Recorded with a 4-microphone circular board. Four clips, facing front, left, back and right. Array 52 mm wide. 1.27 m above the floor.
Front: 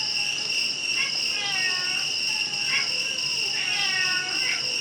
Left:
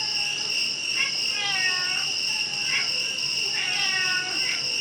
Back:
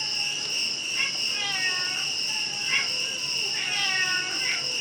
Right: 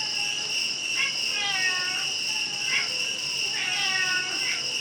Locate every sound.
0.0 s an insect: 30° left, 1.2 m